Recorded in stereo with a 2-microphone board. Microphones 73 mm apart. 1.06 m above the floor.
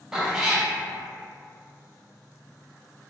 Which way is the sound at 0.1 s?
10° right (ahead or behind).